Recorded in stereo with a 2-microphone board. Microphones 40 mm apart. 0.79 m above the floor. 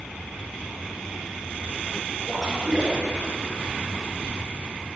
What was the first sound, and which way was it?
A splash, 15° right (ahead or behind).